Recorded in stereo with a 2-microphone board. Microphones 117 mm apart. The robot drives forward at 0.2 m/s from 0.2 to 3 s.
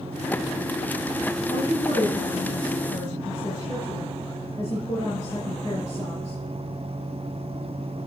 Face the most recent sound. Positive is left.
turn(degrees=45)  # may be behind; listen again after turning